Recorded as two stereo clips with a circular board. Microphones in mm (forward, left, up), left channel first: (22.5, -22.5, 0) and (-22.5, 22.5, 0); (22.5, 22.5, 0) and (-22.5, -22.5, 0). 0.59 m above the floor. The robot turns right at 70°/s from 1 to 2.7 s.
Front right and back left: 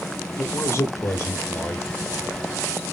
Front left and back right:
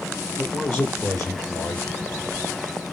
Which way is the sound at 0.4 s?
35° right.